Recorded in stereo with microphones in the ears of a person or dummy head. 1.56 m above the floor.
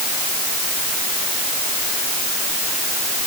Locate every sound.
Only background noise.